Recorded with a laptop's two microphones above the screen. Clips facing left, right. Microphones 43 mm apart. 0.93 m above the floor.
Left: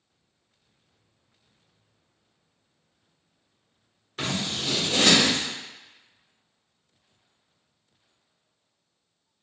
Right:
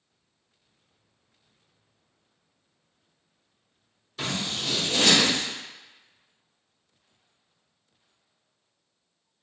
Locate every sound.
4.2 s scissors: 55° left (ahead or behind), 1.1 m